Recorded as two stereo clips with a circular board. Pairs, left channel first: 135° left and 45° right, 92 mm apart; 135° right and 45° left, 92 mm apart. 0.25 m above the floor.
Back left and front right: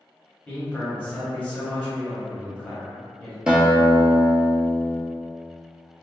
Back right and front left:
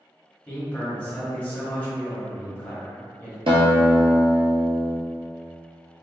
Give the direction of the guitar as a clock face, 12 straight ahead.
11 o'clock.